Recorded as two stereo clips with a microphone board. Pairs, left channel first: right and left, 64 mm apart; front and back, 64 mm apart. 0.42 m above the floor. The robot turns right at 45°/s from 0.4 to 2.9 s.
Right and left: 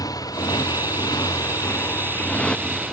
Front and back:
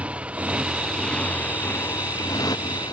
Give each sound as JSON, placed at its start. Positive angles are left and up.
{"t": 0.0, "sound": "a motorcycle", "azimuth_deg": -110}